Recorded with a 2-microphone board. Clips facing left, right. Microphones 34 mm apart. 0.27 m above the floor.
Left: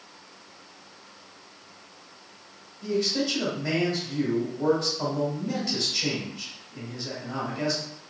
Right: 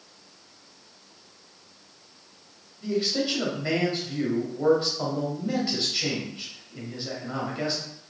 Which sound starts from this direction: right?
A man speaking, at 2.8 s.